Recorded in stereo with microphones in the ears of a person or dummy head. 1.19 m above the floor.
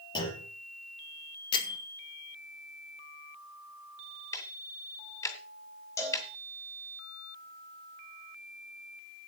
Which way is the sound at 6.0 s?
20° left (ahead or behind).